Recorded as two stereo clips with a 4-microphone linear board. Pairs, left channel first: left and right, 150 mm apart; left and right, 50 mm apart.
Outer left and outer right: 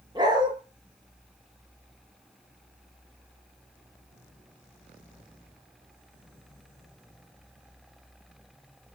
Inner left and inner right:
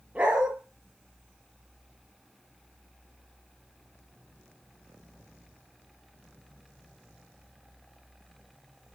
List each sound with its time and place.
0.1 s a dog barking: 30° right (ahead or behind), 8 m